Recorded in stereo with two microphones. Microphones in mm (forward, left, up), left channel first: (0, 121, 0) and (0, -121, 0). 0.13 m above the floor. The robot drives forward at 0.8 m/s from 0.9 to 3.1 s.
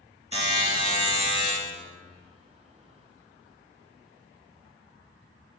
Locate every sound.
0.3 s a buzzer: 25° left (ahead or behind), 1.3 m; by 1.5 s 20° left (ahead or behind), 1.6 m